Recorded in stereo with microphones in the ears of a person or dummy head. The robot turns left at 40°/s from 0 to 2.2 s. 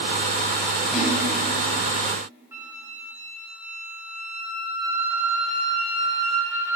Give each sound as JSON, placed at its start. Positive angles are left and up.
{"t": 0.9, "sound": "a splash", "side_deg": 0, "distance_m": 9.5}
{"t": 2.5, "sound": "a flute", "side_deg": -10, "distance_m": 2.5}